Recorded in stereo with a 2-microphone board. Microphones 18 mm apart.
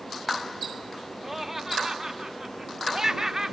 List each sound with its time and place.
1.2 s laughter: 10° right (ahead or behind); by 3.5 s 25° right (ahead or behind)